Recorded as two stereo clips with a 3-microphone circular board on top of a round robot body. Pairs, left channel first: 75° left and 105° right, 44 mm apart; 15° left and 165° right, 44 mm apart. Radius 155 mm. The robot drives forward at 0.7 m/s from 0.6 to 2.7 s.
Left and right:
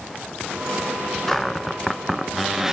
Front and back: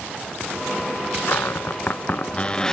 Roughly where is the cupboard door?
Ahead.